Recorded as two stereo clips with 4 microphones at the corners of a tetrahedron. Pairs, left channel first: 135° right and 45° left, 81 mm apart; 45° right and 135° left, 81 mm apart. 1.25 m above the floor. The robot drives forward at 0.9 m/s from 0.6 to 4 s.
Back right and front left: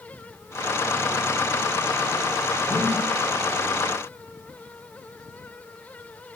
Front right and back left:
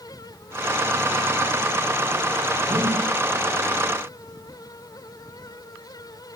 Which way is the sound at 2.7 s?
115° left.